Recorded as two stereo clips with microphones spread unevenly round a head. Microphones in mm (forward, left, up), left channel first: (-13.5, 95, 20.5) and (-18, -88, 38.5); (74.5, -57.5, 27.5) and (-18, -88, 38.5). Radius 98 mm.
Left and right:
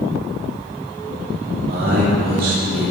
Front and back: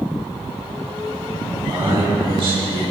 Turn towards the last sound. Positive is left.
turn(degrees=-130)